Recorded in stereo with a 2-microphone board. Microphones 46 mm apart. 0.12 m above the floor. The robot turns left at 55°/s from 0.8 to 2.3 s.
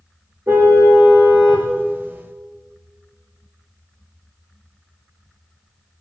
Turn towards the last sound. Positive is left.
turn(degrees=160)